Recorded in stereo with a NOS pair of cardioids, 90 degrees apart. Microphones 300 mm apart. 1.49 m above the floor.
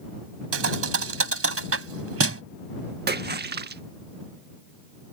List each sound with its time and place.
0.5 s a thud: 50° right
3.1 s a splash: 35° right